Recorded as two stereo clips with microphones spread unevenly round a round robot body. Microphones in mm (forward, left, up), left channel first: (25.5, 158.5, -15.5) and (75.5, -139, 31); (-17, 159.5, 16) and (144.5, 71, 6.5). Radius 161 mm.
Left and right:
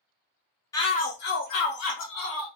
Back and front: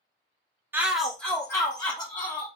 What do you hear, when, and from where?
0.7 s a shout: 40° left, 0.5 m; by 2.5 s 85° left, 1.2 m